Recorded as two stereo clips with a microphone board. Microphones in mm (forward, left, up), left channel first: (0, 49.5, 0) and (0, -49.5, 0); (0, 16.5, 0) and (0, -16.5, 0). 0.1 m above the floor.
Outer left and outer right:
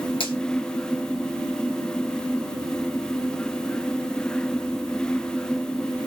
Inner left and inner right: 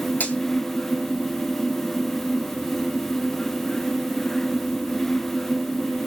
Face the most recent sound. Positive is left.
turn(degrees=65)  # may be behind; listen again after turning